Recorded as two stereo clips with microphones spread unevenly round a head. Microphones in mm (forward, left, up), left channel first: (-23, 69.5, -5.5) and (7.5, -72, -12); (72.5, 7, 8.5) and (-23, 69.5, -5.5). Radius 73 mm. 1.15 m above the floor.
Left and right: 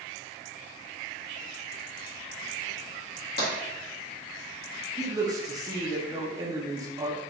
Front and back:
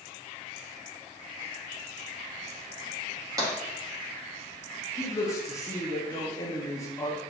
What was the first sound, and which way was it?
Tapping, 95° left.